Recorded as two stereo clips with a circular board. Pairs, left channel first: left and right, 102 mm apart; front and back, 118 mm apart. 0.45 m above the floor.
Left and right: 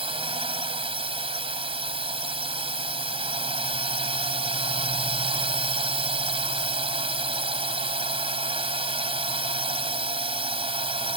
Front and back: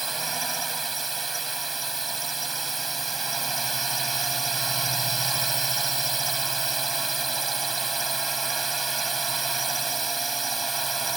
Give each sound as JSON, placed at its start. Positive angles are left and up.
{"t": 0.0, "sound": "a drone", "azimuth_deg": -90}